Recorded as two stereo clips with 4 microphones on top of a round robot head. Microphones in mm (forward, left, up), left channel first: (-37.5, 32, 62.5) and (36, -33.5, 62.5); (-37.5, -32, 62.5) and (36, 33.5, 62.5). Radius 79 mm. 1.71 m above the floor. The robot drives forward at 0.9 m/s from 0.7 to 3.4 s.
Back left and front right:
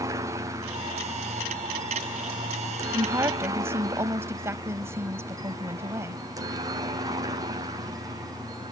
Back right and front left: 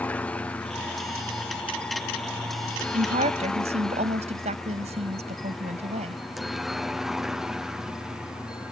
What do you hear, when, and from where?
0.0 s a helicopter: 70° right; by 8.7 s 35° right
2.9 s a woman speaking: 25° left